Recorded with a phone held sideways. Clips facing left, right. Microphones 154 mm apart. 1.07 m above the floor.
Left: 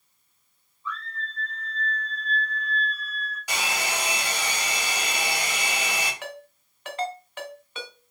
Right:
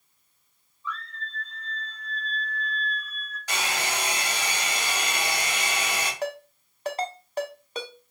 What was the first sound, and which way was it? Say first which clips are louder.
A scream: left 1 dB; 55° left (ahead or behind).